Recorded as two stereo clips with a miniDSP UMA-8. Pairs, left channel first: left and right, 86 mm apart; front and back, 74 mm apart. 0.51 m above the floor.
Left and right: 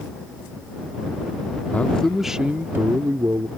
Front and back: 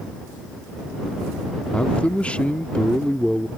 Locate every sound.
1.7 s a man speaking: 50° left; by 3.5 s 75° right